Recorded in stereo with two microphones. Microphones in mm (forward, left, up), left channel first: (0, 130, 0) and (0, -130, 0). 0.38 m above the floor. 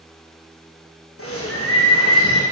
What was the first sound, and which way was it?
A bird, 55° left (ahead or behind).